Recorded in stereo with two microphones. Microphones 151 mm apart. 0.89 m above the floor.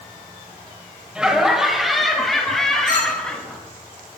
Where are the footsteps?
I don't hear footsteps.